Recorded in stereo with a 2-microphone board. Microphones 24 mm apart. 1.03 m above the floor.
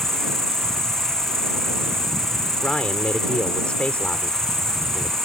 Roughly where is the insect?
Centre.